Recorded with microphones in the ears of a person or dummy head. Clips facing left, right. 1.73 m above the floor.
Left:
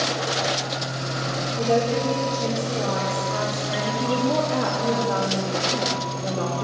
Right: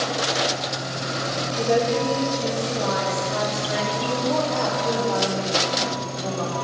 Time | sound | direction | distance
1.6 | a woman speaking | 20° right (ahead or behind) | 2 m
4.0 | a woman speaking | 15° left (ahead or behind) | 1.0 m